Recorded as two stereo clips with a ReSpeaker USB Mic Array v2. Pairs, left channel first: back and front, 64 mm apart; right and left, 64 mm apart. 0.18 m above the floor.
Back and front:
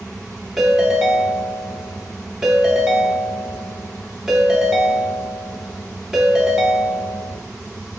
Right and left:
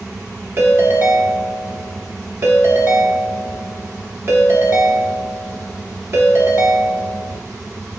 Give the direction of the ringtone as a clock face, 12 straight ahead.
9 o'clock.